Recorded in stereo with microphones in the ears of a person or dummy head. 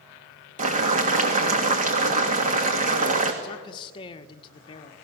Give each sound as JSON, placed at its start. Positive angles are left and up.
{"t": 0.6, "sound": "boiling", "side_deg": -45, "distance_m": 2.0}
{"t": 3.4, "sound": "a man speaking", "side_deg": 30, "distance_m": 1.4}